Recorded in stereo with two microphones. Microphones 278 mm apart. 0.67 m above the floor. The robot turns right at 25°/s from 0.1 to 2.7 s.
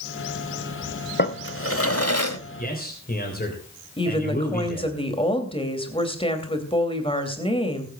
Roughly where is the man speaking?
Left.